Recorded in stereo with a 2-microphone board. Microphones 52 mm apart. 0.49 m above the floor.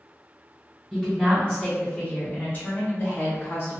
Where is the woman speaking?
5° left (ahead or behind), 1.2 m; by 3.8 s 45° left (ahead or behind), 1.3 m.